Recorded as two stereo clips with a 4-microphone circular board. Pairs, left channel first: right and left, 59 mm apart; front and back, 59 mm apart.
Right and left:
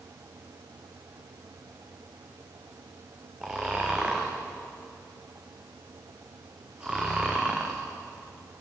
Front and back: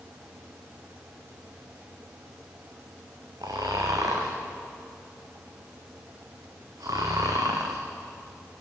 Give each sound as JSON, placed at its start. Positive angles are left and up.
{"t": 3.4, "sound": "snoring", "azimuth_deg": 165, "distance_m": 3.5}